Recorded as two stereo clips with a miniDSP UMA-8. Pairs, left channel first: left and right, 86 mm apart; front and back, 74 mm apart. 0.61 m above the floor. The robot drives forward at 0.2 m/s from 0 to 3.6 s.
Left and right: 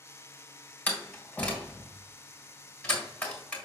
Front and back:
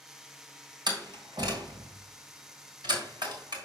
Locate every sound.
0.9 s a door slam: 160° left, 3 m; by 3.6 s 165° left, 3.5 m